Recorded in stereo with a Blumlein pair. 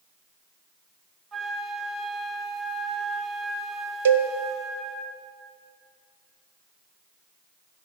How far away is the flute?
About 1.0 m.